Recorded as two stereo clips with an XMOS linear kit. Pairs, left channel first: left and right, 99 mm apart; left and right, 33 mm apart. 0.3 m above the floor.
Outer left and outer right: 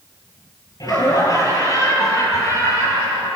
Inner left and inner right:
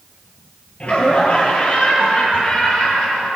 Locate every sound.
0.8 s laughter: 40° left (ahead or behind), 6.5 m; by 3.3 s 35° left (ahead or behind), 10 m